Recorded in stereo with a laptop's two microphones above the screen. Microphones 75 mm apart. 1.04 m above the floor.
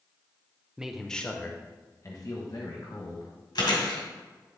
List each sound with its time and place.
0.8 s a man speaking: 10° right (ahead or behind), 0.6 m; by 3.3 s 65° left (ahead or behind), 1.5 m
3.5 s chewing: 70° left (ahead or behind), 2 m